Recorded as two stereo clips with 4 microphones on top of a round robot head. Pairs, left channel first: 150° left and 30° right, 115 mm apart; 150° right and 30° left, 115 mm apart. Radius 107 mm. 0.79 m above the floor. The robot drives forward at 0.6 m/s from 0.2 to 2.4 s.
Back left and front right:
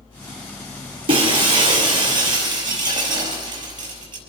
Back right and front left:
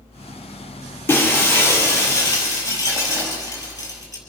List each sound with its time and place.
1.1 s breaking glass: 75° right, 6 m; by 4.2 s 85° right, 5.5 m